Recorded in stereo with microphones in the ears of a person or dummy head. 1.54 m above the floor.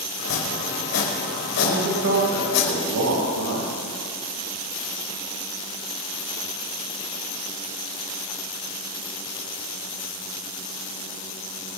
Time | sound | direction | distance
0.2 | chopping | 80° left | 5 m
1.6 | a man speaking | 85° right | 2.5 m